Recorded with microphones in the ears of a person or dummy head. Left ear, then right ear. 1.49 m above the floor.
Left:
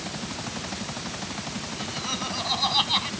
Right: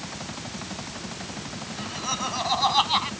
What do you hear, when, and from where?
1.7 s laughter: 25° right (ahead or behind); by 3.1 s 30° right (ahead or behind)